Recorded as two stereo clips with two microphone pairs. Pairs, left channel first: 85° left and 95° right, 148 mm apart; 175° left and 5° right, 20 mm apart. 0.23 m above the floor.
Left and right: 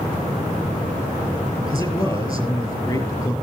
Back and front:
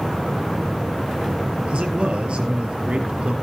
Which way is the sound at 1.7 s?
20° left.